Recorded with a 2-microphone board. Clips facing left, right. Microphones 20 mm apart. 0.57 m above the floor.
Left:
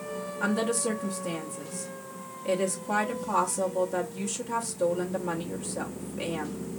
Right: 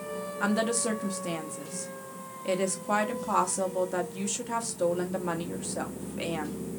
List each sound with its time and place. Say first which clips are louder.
0.4 s a woman speaking: even; 15° right (ahead or behind), 0.8 m